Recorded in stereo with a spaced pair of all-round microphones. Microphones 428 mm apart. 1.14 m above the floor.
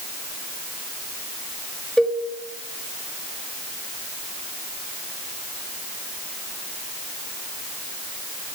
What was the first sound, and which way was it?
A cowbell, centre (ahead or behind).